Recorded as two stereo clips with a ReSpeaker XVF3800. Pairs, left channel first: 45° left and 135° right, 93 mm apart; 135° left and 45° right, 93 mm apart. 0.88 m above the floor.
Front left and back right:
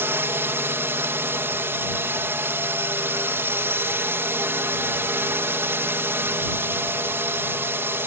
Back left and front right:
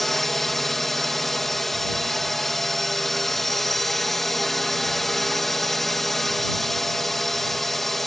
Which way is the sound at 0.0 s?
140° right.